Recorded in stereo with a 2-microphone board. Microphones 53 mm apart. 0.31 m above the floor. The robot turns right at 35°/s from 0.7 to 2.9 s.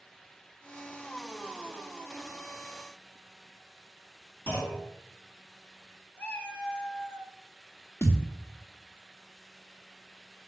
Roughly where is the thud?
Left.